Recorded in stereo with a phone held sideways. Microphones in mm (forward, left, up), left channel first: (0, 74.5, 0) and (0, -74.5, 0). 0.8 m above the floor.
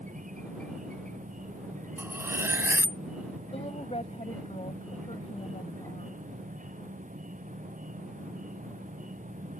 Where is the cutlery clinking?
15° right (ahead or behind).